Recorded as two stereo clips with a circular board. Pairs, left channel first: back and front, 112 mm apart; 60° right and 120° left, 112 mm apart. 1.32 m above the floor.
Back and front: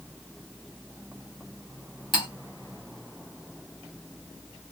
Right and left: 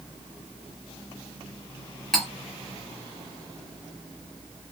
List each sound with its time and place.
2.1 s cutlery clinking: 145° right, 1.2 m